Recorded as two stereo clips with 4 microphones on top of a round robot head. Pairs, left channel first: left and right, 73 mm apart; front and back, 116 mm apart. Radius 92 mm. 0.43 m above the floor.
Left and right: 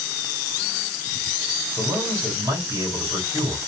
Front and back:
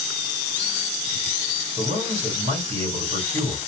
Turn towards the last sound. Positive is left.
turn(degrees=-145)